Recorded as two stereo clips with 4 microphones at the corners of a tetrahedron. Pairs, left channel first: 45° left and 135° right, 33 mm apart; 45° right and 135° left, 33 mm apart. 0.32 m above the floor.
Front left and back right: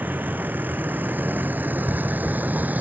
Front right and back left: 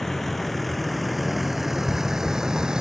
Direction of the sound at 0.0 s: 130° right.